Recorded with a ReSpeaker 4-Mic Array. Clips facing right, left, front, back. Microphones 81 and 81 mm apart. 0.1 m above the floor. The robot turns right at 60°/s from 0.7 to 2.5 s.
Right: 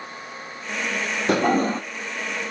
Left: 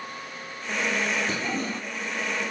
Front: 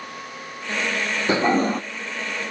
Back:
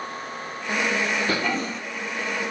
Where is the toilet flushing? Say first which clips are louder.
Right 10 dB, front 6 dB; 65° right, 0.5 m; by 1.8 s 35° right, 0.5 m.